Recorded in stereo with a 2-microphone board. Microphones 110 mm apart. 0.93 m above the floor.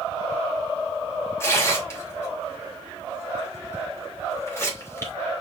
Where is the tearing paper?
25° left (ahead or behind), 3.5 m.